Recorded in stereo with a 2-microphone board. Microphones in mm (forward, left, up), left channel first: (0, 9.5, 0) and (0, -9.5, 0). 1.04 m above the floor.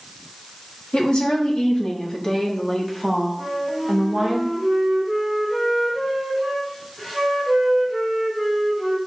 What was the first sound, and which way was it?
A woman speaking, 60° left (ahead or behind).